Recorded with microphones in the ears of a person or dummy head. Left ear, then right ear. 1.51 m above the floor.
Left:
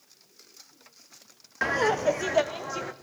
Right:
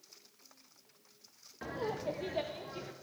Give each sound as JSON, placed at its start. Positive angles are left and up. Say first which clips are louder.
{"t": 1.6, "sound": "laughter", "louder": "left 14 dB", "side_deg": 55, "distance_m": 0.5}